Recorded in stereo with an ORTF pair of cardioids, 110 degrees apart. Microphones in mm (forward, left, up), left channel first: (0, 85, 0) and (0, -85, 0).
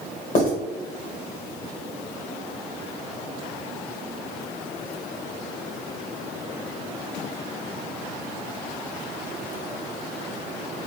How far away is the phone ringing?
I don't hear a phone ringing.